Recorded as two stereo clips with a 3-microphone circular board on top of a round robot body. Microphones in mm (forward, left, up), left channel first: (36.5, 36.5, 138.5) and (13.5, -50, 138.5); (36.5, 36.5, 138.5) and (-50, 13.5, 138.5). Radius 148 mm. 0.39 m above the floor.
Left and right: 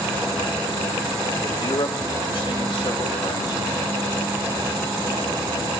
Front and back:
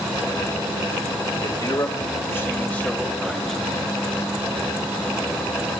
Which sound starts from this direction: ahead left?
A man speaking, at 1.4 s.